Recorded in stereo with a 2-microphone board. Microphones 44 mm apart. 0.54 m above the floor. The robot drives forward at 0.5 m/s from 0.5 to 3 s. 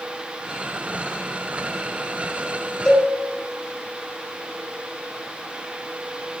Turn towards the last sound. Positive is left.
turn(degrees=5)  # may be behind; listen again after turning